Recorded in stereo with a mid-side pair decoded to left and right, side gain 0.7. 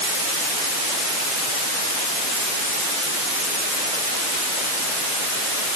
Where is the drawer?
I don't hear a drawer.